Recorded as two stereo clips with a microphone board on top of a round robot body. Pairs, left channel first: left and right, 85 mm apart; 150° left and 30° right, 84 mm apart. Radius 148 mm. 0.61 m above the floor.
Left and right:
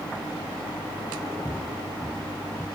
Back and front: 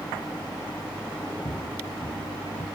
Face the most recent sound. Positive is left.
turn(degrees=160)